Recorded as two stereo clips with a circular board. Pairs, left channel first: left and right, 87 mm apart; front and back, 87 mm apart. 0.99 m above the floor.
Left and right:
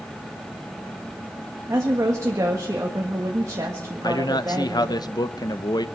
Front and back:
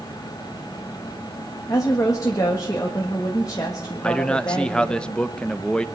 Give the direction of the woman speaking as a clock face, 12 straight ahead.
1 o'clock.